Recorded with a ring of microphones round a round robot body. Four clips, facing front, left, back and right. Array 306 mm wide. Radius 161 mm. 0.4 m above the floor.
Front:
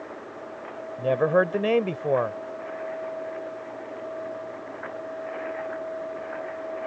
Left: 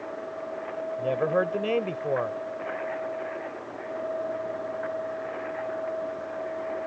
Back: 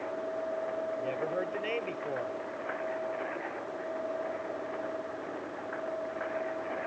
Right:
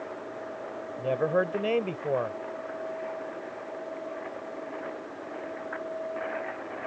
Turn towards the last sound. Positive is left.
turn(degrees=0)